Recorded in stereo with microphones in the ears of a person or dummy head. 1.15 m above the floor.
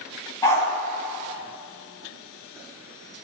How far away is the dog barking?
About 3.5 m.